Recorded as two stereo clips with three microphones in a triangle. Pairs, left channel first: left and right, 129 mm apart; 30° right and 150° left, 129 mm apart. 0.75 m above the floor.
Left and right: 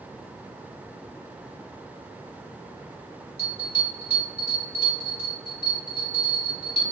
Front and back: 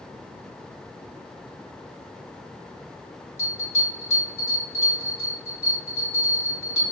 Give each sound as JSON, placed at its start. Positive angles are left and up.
{"t": 3.4, "sound": "a bell", "azimuth_deg": -95, "distance_m": 1.8}